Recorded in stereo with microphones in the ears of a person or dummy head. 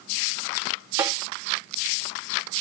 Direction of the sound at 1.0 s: 20° right (ahead or behind).